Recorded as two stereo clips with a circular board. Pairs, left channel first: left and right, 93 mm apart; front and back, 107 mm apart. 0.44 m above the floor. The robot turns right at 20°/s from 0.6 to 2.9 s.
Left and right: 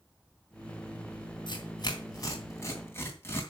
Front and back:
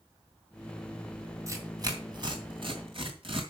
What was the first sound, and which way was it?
Tearing paper, 120° left.